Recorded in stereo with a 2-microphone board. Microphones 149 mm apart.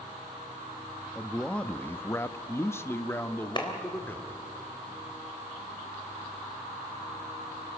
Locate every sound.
1.1 s a man speaking: 5° left (ahead or behind), 0.8 m; by 4.4 s 10° left (ahead or behind), 1.9 m
3.6 s a clap: 30° left (ahead or behind), 3 m